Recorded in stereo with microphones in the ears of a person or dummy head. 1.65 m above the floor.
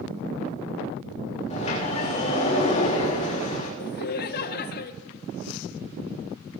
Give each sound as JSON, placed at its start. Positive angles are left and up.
{"t": 1.5, "sound": "a sliding door", "side_deg": 40, "distance_m": 3.5}
{"t": 3.8, "sound": "laughter", "side_deg": 55, "distance_m": 1.2}